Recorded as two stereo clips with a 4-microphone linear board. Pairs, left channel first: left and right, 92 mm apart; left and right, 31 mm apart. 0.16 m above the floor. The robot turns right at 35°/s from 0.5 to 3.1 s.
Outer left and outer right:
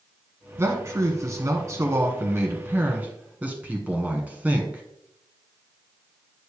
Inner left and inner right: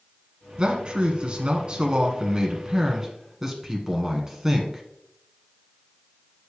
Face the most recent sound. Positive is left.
turn(degrees=-30)